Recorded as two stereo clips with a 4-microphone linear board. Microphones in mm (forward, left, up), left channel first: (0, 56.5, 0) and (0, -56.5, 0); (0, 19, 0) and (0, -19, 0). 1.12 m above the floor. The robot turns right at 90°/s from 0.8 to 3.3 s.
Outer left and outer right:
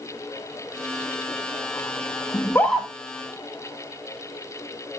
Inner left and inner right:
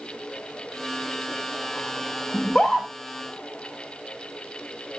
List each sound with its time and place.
2.3 s a scream: 40° left (ahead or behind), 1.5 m; by 2.9 s 10° right (ahead or behind), 1.5 m